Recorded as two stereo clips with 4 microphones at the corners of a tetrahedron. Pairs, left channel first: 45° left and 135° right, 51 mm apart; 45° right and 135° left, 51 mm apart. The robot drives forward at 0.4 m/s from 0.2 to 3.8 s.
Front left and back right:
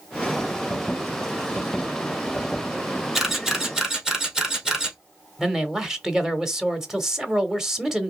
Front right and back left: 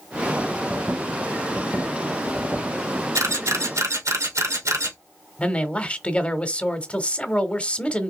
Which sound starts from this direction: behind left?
A camera shutter, at 3.1 s.